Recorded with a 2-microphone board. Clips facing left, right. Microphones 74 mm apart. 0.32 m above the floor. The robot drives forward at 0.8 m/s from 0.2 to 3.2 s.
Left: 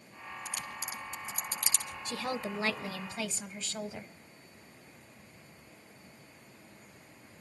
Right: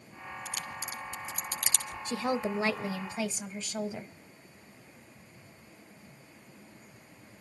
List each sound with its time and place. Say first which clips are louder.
0.5 s a crack: right 1 dB; 60° right (ahead or behind), 5 m; by 1.9 s 70° right (ahead or behind), 4.5 m
2.1 s a woman speaking: right 5 dB; 20° right (ahead or behind), 0.9 m; by 4.1 s 15° right (ahead or behind), 1.4 m